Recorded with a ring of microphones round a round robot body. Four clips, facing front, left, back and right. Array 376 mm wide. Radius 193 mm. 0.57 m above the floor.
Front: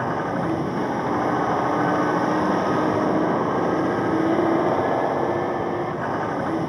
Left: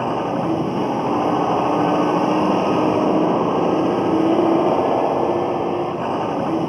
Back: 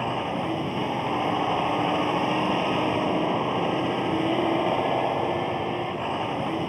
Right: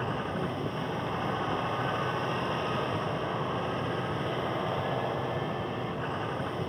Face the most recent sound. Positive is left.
turn(degrees=80)